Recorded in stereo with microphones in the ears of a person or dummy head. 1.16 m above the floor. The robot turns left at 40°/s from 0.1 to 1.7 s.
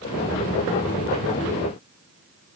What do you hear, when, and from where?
Only background noise.